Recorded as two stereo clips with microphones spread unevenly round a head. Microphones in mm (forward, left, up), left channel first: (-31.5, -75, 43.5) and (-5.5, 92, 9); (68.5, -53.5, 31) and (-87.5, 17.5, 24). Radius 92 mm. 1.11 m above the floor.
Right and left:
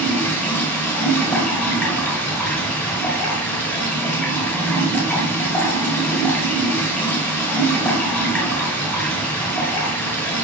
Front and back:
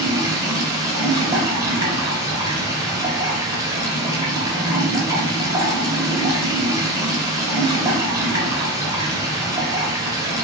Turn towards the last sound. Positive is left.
turn(degrees=-150)